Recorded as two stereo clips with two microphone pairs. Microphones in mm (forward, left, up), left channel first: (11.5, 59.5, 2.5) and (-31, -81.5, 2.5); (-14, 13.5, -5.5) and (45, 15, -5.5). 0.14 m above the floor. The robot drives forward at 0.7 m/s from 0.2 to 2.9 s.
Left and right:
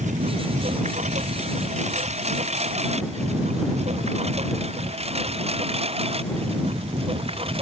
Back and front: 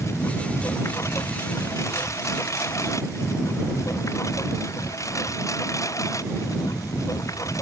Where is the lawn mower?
140° right; by 7.6 s 155° right.